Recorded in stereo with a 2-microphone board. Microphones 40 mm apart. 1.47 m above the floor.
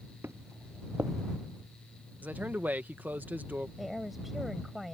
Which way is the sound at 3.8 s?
5° right (ahead or behind).